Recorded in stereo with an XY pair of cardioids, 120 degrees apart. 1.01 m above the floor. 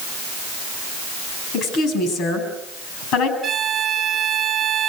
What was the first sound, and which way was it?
A woman speaking, 70° left.